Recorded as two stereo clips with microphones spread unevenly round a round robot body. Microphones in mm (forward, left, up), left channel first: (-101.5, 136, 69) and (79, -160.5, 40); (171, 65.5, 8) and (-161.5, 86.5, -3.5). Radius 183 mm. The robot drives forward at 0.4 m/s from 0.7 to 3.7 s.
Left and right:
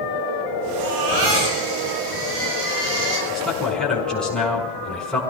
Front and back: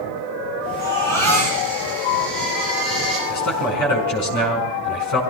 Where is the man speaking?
30° left, 5.5 m; by 5.2 s 35° left, 5 m.